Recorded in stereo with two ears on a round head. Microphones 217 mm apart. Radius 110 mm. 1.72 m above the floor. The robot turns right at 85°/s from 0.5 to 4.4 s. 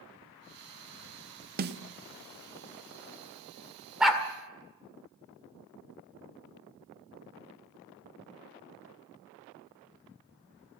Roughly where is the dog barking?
Centre.